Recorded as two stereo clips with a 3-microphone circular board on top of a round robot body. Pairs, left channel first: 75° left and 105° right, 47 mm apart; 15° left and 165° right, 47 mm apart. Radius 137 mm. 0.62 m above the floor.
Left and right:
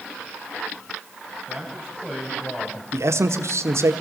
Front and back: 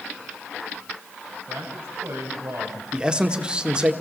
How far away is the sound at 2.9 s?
About 1.8 m.